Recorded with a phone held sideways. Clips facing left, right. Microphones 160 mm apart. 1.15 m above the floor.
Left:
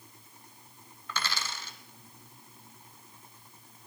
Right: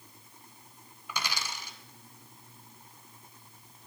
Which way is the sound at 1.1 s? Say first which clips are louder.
Even; 10° right (ahead or behind).